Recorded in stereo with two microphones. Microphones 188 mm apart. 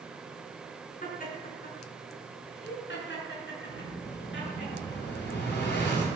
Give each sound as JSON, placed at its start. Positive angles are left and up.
{"t": 1.0, "sound": "laughter", "side_deg": 45, "distance_m": 4.5}
{"t": 3.7, "sound": "an explosion", "side_deg": 70, "distance_m": 6.0}